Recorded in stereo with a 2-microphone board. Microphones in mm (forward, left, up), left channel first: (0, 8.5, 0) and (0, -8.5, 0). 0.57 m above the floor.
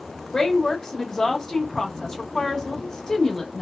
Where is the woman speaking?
25° left (ahead or behind), 1.0 m.